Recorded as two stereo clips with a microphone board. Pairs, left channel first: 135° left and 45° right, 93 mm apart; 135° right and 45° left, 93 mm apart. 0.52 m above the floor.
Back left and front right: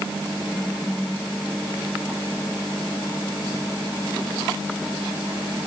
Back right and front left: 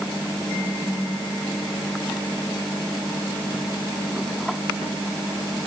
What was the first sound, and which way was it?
Only background noise.